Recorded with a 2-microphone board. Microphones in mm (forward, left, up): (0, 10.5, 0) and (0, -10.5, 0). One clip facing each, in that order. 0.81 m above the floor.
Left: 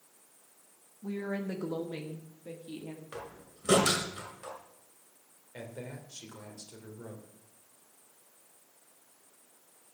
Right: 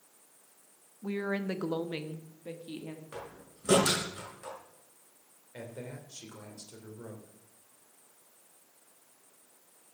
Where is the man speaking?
Centre (ahead or behind), 3 m.